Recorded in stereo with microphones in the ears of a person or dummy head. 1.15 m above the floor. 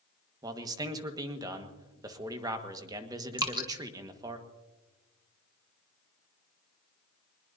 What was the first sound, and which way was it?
A man speaking, 20° right (ahead or behind).